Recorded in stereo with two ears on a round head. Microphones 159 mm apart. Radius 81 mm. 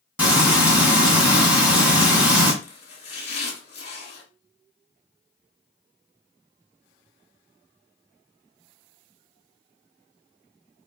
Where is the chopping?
40° left (ahead or behind), 1.5 m.